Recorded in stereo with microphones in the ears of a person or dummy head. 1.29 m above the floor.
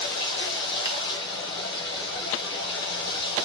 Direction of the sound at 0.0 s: 70° left (ahead or behind).